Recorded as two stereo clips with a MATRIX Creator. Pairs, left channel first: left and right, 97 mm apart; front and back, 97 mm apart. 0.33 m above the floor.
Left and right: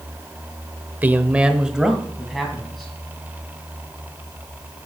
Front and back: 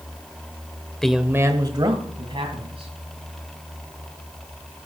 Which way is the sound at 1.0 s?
75° right.